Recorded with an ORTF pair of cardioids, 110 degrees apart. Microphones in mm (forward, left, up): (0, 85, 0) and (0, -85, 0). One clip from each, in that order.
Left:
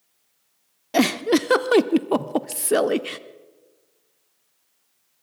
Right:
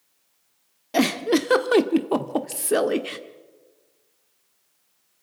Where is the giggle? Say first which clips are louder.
Left 1 dB; 10° left, 1.1 m.